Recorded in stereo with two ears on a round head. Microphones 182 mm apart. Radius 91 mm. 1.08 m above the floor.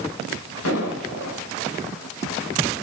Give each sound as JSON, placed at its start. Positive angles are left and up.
{"t": 0.7, "sound": "an explosion", "side_deg": 80, "distance_m": 3.5}